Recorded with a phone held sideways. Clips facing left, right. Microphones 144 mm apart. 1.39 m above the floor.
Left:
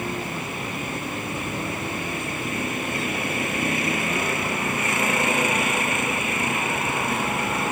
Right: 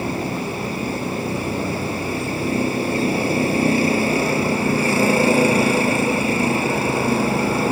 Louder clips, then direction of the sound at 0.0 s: Right 6 dB; 30° right (ahead or behind).